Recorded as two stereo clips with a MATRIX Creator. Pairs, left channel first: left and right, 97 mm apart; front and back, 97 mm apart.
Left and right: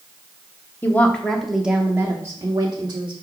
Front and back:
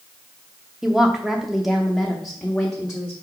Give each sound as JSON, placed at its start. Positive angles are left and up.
{"t": 0.8, "sound": "a woman speaking", "azimuth_deg": 110, "distance_m": 0.9}